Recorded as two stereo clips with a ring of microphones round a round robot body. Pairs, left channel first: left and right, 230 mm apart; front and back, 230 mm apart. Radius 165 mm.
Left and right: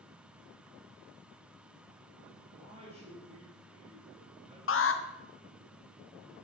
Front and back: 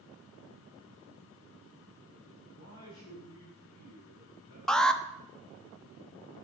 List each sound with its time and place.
2.5 s a man speaking: 25° right, 5.5 m
4.7 s an alarm: 85° left, 1.3 m